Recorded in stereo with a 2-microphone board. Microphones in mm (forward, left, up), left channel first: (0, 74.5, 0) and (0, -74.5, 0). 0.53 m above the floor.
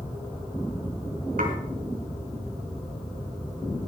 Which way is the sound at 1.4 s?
80° right.